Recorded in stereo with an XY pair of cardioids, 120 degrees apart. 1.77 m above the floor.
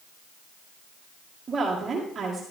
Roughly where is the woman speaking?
Ahead right.